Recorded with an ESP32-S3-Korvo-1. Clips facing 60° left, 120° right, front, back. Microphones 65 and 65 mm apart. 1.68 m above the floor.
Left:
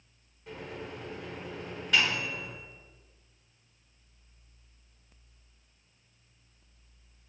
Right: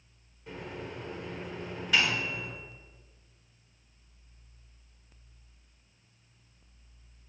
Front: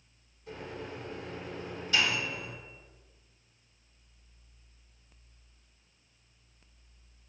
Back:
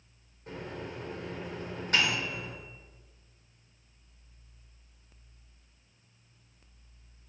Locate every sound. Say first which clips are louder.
0.5 s a microwave: even, back 1 dB; 150° left, 1.2 m